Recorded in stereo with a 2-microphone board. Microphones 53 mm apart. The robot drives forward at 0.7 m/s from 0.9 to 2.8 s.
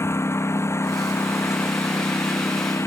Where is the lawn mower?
55° left (ahead or behind); by 2.9 s 60° left (ahead or behind).